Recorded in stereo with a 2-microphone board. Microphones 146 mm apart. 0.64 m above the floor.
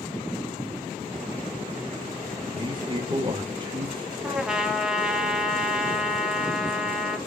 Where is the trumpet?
5° right (ahead or behind), 2.5 m.